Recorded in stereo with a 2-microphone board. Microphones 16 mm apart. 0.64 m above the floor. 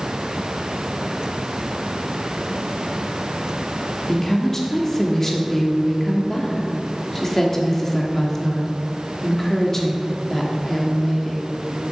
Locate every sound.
4.1 s a woman speaking: 20° left (ahead or behind), 1.4 m